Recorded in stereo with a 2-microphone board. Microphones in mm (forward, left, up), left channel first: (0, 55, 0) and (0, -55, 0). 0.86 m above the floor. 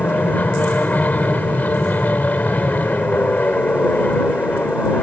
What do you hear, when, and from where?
0.0 s an aircraft: 15° left (ahead or behind)